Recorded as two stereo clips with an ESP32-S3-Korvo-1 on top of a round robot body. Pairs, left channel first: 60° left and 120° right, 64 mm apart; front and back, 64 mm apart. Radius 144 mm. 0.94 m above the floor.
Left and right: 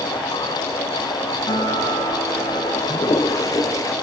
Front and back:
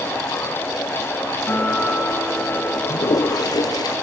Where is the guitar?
65° left, 7 m.